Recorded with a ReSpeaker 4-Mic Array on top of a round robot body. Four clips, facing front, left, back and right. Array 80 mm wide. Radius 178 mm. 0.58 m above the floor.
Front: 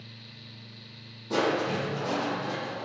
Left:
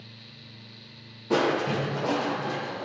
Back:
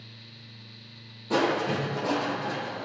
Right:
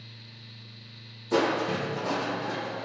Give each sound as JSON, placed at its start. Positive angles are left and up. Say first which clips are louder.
{"t": 1.3, "sound": "crushing", "louder": "left 1 dB, back 1 dB", "azimuth_deg": 105, "distance_m": 9.5}